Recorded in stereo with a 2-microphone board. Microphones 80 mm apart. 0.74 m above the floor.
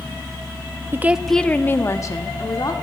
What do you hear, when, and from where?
0.9 s a woman speaking: 30° right (ahead or behind), 0.5 m; by 2.7 s 50° left (ahead or behind), 1.5 m